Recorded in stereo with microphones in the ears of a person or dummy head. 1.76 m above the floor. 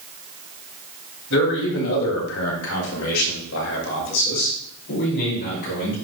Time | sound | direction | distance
1.3 | a man speaking | 70° left (ahead or behind) | 3.5 m